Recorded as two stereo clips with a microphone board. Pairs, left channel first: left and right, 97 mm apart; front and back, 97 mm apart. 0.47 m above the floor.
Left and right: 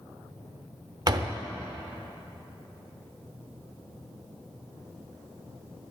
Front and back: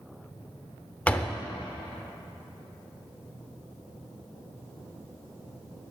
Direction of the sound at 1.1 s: 70° right.